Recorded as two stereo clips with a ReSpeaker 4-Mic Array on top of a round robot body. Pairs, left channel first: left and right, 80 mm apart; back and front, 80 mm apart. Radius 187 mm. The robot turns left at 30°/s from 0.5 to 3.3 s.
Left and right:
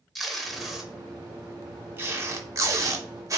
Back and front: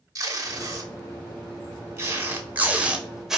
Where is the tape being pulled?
5° left, 0.9 m; by 3.4 s 80° right, 0.9 m.